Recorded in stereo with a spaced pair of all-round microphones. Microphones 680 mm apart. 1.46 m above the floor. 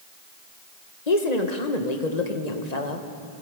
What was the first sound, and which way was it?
A woman speaking, 80° left.